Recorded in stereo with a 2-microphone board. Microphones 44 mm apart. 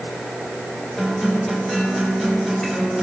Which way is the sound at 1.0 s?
5° left (ahead or behind).